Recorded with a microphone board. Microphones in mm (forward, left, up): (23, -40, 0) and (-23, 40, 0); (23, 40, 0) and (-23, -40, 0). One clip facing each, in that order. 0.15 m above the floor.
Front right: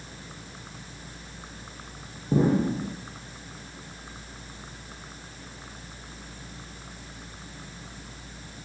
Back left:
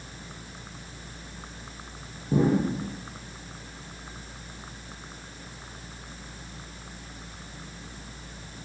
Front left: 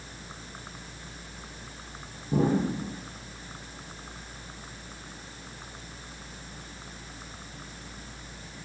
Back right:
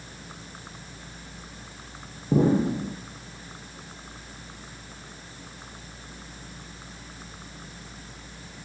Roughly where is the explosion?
Behind right.